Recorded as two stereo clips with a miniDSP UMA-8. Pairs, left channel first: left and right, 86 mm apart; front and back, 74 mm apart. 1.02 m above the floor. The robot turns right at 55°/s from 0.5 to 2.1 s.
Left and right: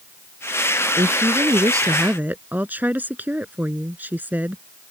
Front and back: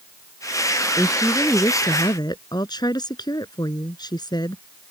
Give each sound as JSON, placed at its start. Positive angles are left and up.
{"t": 1.0, "sound": "a woman speaking", "azimuth_deg": -85}